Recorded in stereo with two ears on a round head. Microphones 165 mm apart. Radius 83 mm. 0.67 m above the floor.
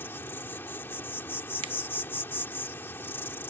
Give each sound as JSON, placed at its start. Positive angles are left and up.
{"t": 0.0, "sound": "an insect", "side_deg": 15}
{"t": 1.6, "sound": "a finger snap", "side_deg": -30}